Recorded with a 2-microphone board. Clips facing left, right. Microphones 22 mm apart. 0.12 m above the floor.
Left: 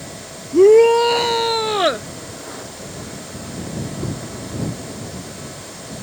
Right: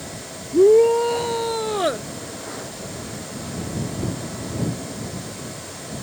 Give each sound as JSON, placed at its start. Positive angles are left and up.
{"t": 0.5, "sound": "a shout", "side_deg": 60}